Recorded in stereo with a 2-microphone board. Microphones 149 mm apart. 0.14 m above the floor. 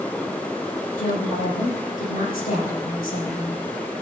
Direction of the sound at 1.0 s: 60° left (ahead or behind).